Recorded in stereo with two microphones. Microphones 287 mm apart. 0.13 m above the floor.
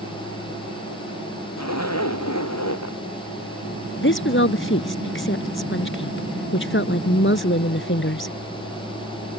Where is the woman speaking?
45° left (ahead or behind).